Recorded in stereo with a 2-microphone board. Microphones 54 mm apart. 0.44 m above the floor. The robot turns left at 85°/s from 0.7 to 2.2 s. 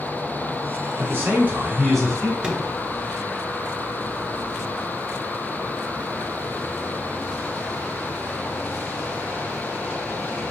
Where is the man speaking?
105° right, 2 m; by 2.3 s 150° left, 2 m.